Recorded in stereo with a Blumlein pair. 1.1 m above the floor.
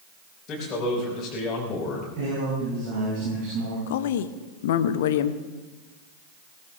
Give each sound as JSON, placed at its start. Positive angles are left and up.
{"t": 0.5, "sound": "a man speaking", "azimuth_deg": 25, "distance_m": 4.5}
{"t": 2.2, "sound": "a man speaking", "azimuth_deg": -45, "distance_m": 7.5}
{"t": 3.9, "sound": "a woman speaking", "azimuth_deg": 55, "distance_m": 1.1}